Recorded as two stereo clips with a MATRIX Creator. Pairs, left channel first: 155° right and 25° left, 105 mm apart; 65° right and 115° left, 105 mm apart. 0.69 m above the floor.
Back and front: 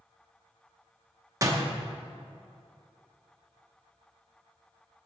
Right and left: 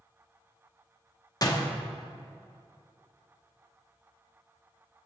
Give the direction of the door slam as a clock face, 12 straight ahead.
1 o'clock.